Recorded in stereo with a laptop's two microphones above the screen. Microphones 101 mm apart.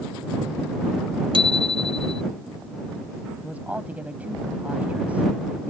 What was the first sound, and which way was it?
A bicycle bell, 60° right (ahead or behind).